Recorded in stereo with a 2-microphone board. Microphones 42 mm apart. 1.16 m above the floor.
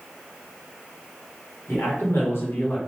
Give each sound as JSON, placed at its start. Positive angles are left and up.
{"t": 1.7, "sound": "a man speaking", "side_deg": 70, "distance_m": 1.6}